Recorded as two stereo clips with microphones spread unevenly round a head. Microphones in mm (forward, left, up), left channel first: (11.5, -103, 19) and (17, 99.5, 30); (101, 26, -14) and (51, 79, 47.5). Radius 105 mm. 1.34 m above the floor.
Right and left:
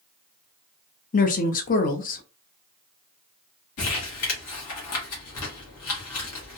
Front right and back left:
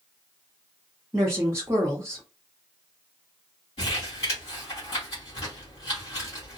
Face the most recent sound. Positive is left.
turn(degrees=-90)